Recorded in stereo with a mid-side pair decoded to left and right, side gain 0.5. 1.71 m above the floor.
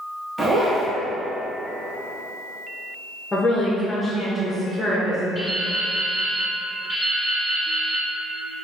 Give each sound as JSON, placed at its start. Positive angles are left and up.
{"t": 0.4, "sound": "a zipper", "azimuth_deg": -20, "distance_m": 1.3}
{"t": 3.3, "sound": "a woman speaking", "azimuth_deg": 20, "distance_m": 1.4}
{"t": 5.3, "sound": "dripping", "azimuth_deg": -25, "distance_m": 1.7}